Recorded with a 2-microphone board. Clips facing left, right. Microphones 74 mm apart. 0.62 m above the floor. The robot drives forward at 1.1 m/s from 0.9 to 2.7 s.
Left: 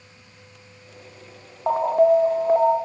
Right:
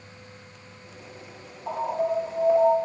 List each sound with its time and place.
1.7 s an alarm: 55° left (ahead or behind), 1.1 m; by 2.8 s 40° left (ahead or behind), 1.3 m